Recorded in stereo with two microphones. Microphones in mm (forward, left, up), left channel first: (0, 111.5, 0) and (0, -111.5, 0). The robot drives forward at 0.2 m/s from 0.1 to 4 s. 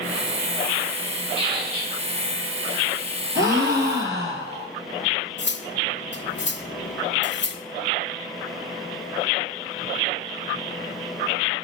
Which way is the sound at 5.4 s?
55° left (ahead or behind).